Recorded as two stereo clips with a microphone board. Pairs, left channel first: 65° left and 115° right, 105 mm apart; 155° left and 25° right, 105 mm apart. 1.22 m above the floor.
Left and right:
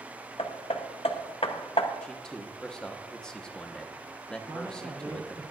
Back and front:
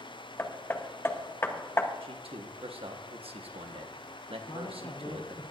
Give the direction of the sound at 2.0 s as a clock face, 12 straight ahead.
12 o'clock.